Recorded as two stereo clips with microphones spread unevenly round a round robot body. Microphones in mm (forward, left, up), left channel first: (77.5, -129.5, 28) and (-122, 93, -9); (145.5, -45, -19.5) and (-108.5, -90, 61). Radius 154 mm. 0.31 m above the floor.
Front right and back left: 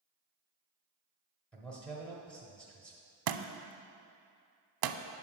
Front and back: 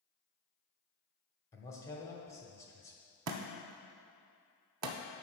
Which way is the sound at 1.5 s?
45° left.